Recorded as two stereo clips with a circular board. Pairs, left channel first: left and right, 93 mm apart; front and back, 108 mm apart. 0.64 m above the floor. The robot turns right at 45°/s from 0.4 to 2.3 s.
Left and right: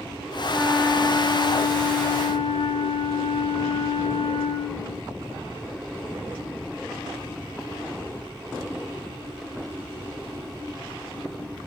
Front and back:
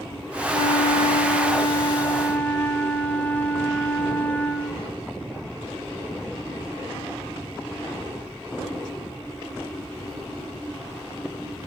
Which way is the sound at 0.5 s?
5° right.